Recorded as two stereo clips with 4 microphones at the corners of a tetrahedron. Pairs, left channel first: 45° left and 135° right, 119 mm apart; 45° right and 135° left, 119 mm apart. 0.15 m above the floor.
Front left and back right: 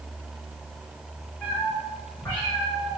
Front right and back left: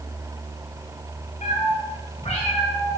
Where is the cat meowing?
30° right, 4.5 m; by 3.0 s 20° right, 6 m.